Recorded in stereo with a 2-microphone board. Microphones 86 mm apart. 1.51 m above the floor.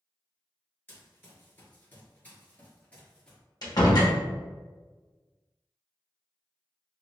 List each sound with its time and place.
0.9 s running footsteps: 25° left (ahead or behind), 1.6 m; by 3.4 s 10° left (ahead or behind), 1.9 m
3.6 s a door slam: 50° left (ahead or behind), 1.0 m